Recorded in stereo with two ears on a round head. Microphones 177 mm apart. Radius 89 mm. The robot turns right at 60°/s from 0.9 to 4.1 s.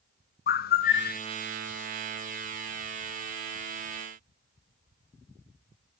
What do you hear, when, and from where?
0.5 s a bird: 50° left (ahead or behind), 0.7 m; by 1.2 s 40° left (ahead or behind), 0.7 m